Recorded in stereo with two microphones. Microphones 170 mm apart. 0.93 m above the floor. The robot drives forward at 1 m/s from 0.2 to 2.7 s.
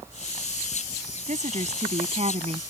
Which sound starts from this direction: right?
A woman speaking, at 1.3 s.